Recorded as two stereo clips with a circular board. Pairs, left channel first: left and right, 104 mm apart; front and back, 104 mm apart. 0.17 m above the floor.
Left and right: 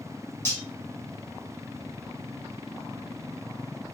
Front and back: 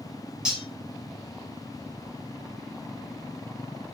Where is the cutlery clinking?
110° left, 0.8 m.